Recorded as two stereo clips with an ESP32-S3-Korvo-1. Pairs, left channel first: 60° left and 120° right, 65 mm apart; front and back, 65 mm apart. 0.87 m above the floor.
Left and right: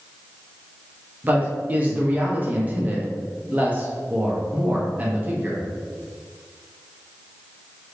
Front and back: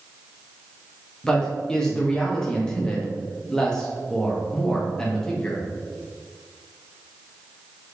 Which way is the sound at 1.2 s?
75° right.